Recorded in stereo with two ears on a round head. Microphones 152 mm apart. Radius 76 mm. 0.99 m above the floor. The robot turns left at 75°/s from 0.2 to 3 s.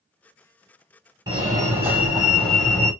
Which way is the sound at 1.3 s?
25° right (ahead or behind).